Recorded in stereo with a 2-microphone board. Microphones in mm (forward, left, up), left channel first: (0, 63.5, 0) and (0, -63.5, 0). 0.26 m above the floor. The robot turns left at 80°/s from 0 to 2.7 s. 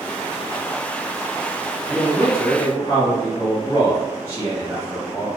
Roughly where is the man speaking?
Left.